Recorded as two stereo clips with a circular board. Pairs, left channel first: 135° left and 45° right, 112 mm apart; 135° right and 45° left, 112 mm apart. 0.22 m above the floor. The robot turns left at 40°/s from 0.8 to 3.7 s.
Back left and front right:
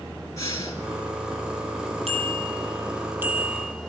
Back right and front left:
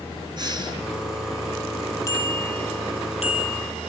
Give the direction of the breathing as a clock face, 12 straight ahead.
9 o'clock.